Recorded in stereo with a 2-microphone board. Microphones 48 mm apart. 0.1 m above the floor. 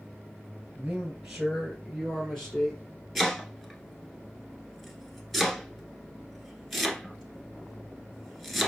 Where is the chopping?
Centre (ahead or behind), 1.0 m.